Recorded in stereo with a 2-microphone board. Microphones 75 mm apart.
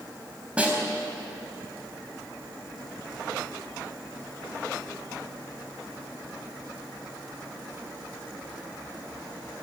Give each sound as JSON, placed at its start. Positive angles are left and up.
{"t": 0.6, "sound": "a snare drum", "side_deg": -15, "distance_m": 4.0}